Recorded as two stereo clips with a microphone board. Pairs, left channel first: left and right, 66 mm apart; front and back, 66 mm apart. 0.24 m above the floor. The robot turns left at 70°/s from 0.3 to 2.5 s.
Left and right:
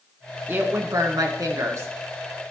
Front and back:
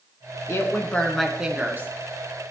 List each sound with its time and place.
0.5 s a woman speaking: 35° right, 2 m; by 1.9 s 135° right, 2 m